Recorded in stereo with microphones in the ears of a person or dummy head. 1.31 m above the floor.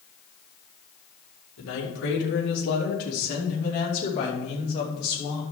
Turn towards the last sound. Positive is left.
turn(degrees=20)  # may be behind; listen again after turning